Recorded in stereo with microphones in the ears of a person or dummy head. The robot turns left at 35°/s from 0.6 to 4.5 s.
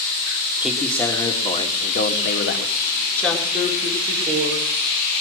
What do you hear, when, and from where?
0.6 s a man speaking: straight behind, 1.7 m; by 2.8 s 105° left, 1.7 m
3.2 s a woman speaking: 10° left, 4.5 m; by 4.7 s 35° right, 4.5 m